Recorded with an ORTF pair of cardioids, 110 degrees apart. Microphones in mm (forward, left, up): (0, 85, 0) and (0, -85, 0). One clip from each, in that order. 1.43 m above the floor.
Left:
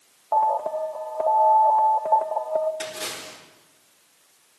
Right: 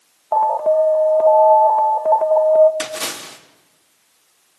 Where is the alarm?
25° right, 1.3 m.